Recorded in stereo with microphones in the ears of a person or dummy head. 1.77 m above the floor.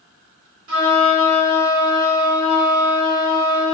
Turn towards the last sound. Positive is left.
turn(degrees=-60)  # may be behind; listen again after turning